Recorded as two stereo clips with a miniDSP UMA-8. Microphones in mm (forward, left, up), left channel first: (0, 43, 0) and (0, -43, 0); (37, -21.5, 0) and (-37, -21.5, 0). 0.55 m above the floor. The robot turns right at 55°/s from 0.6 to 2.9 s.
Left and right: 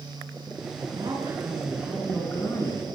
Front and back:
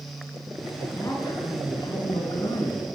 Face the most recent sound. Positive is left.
turn(degrees=55)